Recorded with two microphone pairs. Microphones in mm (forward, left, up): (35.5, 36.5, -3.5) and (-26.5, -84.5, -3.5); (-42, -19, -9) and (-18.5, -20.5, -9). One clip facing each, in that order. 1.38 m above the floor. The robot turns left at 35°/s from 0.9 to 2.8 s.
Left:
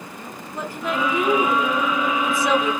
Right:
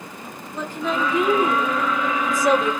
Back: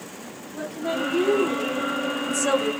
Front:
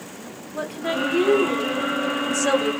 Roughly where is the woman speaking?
Ahead.